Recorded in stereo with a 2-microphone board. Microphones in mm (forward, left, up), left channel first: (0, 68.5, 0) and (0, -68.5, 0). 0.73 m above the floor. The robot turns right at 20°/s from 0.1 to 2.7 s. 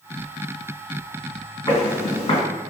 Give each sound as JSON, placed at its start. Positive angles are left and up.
{"t": 1.7, "sound": "footsteps", "side_deg": 30, "distance_m": 2.0}